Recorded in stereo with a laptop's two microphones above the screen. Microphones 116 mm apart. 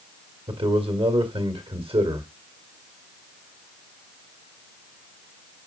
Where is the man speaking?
50° right (ahead or behind), 1.7 m.